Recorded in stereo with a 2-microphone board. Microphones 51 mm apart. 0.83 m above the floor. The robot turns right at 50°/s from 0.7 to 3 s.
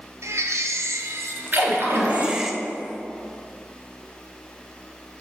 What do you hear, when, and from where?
0.2 s a baby crying: 95° right, 0.8 m; by 2.5 s 5° right, 0.8 m
1.5 s a splash: 140° right, 3 m; by 2.4 s 95° right, 3 m